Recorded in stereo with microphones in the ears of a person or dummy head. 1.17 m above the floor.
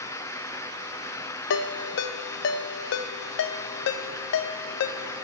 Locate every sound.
1.5 s a ringtone: 65° left (ahead or behind), 0.6 m